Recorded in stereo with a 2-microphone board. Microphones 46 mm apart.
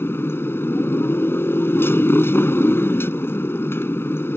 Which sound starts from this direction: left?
A motorcycle, at 0.0 s.